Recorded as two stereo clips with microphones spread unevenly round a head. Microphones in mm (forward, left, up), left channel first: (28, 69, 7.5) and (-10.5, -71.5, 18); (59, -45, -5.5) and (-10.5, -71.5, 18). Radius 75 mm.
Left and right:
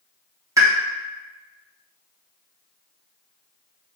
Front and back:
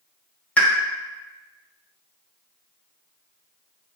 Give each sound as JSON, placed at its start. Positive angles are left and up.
{"t": 0.6, "sound": "a pop", "azimuth_deg": -40, "distance_m": 1.3}